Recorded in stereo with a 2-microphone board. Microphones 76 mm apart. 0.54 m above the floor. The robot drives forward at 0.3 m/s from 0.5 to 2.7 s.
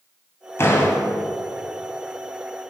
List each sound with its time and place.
0.6 s a door slam: 35° left (ahead or behind), 2 m